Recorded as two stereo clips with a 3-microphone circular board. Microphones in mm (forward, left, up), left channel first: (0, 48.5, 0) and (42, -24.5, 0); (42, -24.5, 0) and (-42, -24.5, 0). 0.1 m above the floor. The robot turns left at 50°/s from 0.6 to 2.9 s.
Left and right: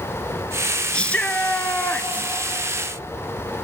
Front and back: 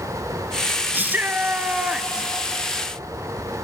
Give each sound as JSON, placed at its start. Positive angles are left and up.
{"t": 0.9, "sound": "a shout", "azimuth_deg": 175, "distance_m": 1.1}